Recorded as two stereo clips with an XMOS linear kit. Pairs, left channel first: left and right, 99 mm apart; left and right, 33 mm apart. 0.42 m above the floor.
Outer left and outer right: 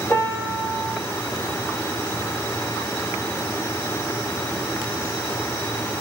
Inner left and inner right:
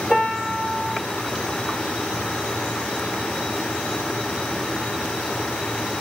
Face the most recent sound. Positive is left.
turn(degrees=30)  # may be behind; listen again after turning